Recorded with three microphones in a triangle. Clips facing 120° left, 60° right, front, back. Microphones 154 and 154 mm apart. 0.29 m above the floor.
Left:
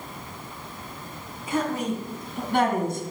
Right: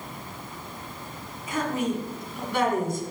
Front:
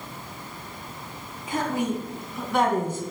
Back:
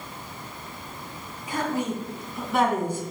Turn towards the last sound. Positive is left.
turn(degrees=105)